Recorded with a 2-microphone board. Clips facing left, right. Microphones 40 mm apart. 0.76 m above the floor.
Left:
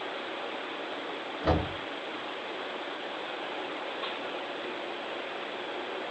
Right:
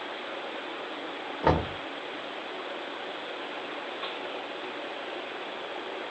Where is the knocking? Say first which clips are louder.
Right 3 dB; 65° right (ahead or behind), 1.4 m.